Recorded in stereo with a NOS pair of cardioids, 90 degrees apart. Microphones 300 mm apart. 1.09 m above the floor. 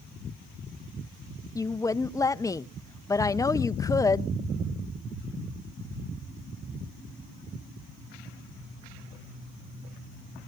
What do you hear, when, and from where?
1.6 s a woman speaking: 10° left, 0.6 m